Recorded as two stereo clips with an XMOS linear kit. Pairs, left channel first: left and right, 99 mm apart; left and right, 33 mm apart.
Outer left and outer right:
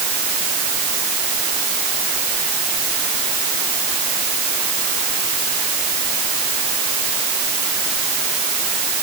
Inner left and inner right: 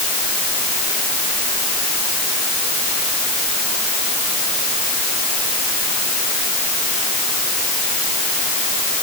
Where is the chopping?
I don't hear chopping.